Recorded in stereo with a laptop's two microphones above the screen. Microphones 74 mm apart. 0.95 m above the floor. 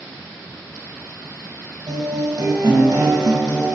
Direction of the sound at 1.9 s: 75° right (ahead or behind).